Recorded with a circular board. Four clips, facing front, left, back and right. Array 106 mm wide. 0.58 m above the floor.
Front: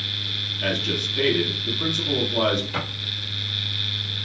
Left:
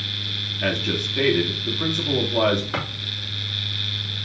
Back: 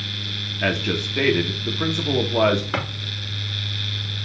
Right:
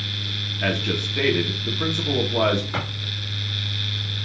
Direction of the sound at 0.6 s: 170° right.